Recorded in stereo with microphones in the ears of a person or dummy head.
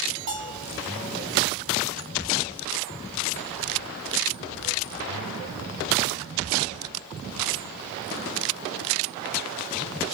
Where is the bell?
35° right (ahead or behind), 1.6 m.